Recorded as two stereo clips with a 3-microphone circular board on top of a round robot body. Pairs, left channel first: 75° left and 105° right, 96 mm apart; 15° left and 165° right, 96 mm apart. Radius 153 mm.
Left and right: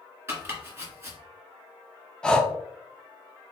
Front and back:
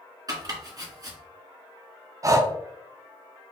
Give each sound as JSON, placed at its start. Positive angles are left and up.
{"t": 0.3, "sound": "chopping", "azimuth_deg": -160, "distance_m": 1.7}
{"t": 2.2, "sound": "breathing", "azimuth_deg": 155, "distance_m": 0.7}